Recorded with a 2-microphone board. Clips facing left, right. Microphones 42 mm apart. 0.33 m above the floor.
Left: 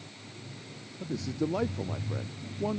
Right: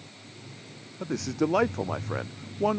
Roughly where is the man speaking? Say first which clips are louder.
Right 4 dB; right.